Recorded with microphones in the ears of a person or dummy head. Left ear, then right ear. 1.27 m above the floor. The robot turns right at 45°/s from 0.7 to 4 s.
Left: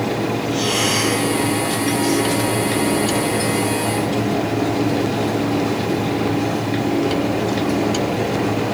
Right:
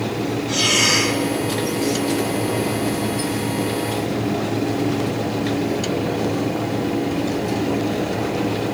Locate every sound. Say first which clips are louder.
0.5 s breathing: right 4 dB; 75° right (ahead or behind), 3 m; by 1.2 s 50° right (ahead or behind), 3 m